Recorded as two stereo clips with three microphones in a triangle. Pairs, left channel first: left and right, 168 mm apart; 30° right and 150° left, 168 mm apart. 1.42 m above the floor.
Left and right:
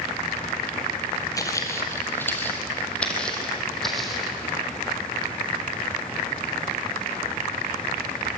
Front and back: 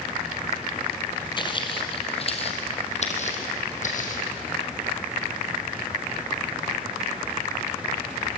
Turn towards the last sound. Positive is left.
turn(degrees=0)